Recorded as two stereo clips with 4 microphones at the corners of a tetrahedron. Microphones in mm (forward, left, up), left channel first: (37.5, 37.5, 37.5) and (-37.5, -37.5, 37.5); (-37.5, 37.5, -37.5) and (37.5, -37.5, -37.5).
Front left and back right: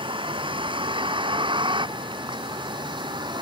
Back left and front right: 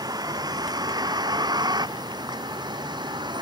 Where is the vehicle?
100° right; by 3.4 s 90° right.